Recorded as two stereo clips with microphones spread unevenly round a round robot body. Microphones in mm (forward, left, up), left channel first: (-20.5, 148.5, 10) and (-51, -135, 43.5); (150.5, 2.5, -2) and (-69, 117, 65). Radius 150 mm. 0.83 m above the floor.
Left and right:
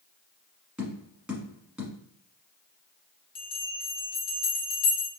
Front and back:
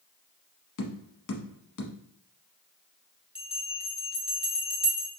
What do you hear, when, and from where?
0.8 s tapping: 15° right, 1.1 m
3.4 s a bell: 65° left, 1.4 m